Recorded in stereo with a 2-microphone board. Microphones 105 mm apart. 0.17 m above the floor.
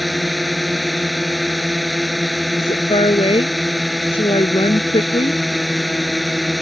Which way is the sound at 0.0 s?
Centre (ahead or behind).